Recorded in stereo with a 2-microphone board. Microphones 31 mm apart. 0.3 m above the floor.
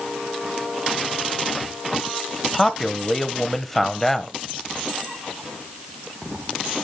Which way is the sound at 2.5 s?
5° left (ahead or behind).